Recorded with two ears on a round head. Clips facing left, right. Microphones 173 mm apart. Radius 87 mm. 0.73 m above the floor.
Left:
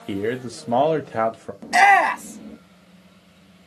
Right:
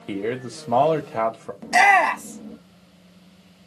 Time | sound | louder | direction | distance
0.1 | a man speaking | left 2 dB | 10° left (ahead or behind) | 0.6 m
1.6 | a shout | left 2 dB | 5° left (ahead or behind) | 1.0 m